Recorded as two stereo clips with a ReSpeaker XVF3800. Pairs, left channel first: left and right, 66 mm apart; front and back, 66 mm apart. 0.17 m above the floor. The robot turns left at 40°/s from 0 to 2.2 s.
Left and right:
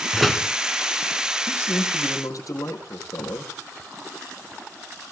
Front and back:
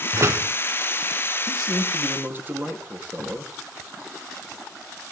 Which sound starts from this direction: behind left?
A man speaking, at 1.5 s.